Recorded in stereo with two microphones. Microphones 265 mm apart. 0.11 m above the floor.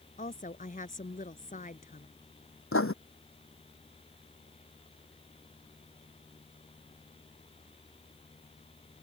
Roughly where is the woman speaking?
Left.